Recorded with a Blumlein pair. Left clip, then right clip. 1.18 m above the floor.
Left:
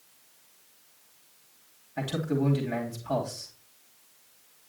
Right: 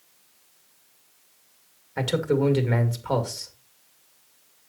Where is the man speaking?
30° right, 2 m.